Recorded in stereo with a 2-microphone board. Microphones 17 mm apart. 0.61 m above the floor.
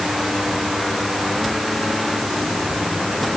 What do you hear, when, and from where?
Only background noise.